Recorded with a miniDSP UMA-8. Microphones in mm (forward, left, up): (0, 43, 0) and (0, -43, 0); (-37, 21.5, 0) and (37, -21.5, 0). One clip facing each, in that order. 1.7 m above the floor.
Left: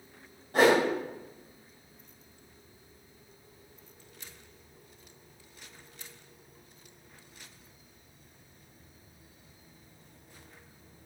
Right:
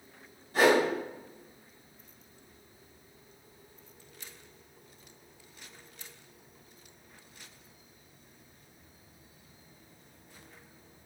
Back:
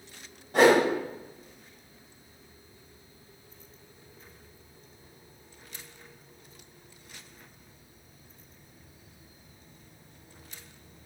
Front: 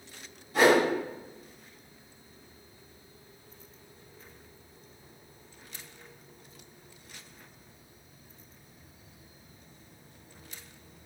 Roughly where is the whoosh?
Behind left.